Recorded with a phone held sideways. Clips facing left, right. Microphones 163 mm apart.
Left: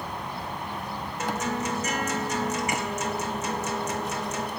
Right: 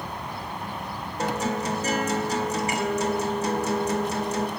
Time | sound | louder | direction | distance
1.2 | a guitar | right 3 dB | 35° right (ahead or behind) | 2 m